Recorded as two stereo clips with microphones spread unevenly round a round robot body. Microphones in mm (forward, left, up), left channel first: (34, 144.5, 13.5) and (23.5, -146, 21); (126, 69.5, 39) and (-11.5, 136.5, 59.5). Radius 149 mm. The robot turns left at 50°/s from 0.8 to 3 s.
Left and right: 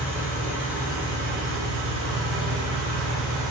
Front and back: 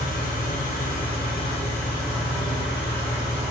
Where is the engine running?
10° right, 1.7 m; by 3.5 s 120° right, 1.7 m.